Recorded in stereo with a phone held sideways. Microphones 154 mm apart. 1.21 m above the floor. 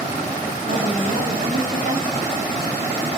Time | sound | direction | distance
0.7 | a woman speaking | 65° right (ahead or behind) | 5 m